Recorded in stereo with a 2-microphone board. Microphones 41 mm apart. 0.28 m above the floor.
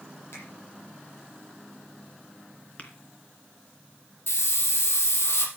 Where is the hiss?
65° left (ahead or behind), 3 m.